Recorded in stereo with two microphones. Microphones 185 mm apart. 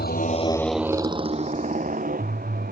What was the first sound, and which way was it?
A motorcycle, 60° left (ahead or behind).